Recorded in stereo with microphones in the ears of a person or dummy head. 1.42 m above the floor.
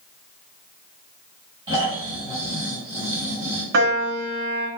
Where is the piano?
60° right (ahead or behind), 0.9 m.